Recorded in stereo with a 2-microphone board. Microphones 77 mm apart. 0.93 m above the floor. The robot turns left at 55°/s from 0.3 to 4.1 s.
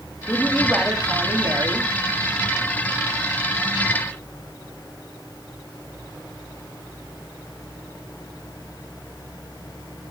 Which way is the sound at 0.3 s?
20° left.